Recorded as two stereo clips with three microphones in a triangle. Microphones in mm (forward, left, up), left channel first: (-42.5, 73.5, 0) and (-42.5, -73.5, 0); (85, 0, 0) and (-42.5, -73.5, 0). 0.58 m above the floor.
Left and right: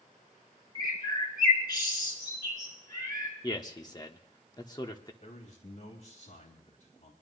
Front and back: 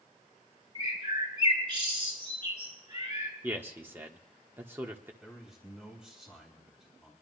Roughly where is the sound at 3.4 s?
Behind left.